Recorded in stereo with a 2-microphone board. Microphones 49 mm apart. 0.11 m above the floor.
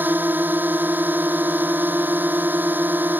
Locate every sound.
0.0 s a drone: 40° right (ahead or behind)